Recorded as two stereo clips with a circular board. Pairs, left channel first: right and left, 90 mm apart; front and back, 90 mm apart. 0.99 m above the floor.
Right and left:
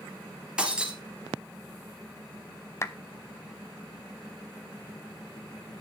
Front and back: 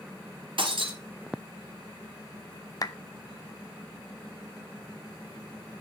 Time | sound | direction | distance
0.6 | breaking glass | 170° left | 2.5 m
2.8 | a clap | 35° right | 0.6 m